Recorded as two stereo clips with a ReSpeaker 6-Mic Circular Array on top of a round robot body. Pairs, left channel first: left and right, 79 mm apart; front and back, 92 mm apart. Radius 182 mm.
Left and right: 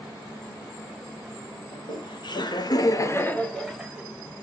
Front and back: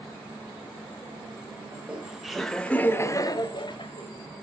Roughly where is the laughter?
Left.